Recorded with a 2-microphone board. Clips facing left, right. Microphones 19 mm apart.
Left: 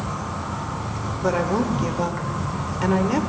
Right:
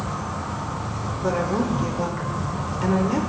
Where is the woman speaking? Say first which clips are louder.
Left 2 dB; 20° left (ahead or behind), 1.1 m.